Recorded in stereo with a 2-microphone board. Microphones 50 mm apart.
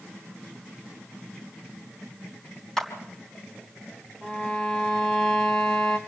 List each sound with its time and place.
2.8 s a clap: 5° left (ahead or behind), 3 m
4.2 s a violin: 10° left (ahead or behind), 2 m